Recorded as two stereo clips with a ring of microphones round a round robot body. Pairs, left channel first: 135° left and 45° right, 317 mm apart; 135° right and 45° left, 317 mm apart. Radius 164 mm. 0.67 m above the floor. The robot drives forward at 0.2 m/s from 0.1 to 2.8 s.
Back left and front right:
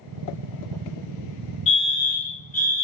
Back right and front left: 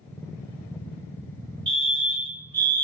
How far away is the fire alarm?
About 2.0 m.